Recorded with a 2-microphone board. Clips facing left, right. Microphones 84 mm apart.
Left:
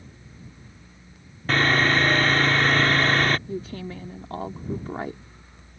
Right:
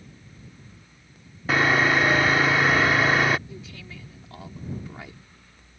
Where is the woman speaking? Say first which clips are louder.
Left 10 dB; 45° left (ahead or behind).